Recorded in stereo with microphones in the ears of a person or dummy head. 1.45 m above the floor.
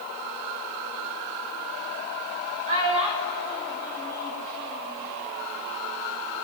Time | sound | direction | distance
2.7 | a child speaking | 40° right (ahead or behind) | 3.5 m